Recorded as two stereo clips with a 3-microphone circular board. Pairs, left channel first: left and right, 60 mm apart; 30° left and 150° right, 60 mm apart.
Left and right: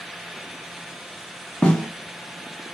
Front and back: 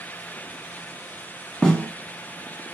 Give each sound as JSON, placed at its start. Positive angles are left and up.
{"t": 1.6, "sound": "a snare drum", "azimuth_deg": 95, "distance_m": 1.0}